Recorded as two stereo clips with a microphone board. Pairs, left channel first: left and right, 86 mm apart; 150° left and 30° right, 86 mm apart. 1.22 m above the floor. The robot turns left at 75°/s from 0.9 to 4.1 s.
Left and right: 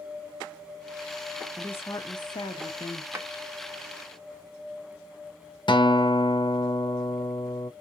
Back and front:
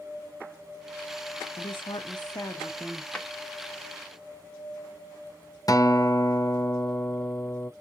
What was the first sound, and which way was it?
A woman speaking, 170° left.